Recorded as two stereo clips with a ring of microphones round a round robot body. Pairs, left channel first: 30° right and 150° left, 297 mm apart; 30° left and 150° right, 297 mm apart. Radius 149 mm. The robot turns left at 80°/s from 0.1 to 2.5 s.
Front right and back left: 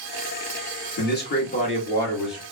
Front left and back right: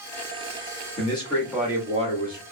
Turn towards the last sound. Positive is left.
turn(degrees=-140)